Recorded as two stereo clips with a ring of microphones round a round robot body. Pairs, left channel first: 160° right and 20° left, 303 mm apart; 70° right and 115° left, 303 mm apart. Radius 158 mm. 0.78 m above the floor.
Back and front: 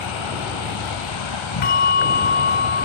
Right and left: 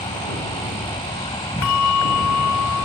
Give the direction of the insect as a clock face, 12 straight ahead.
5 o'clock.